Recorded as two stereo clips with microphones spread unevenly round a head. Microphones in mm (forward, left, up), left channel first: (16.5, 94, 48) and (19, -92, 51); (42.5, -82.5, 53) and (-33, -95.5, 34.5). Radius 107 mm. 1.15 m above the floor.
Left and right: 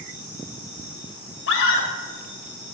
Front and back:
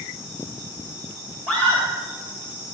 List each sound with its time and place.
1.5 s a scream: 115° left, 2.5 m